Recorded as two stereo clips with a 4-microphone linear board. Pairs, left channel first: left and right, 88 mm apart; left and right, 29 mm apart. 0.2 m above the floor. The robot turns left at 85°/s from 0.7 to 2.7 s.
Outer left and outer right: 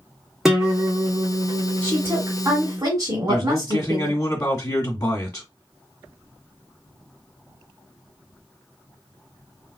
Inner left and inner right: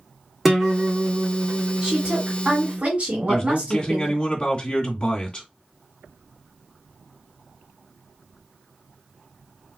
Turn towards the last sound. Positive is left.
turn(degrees=35)  # may be behind; listen again after turning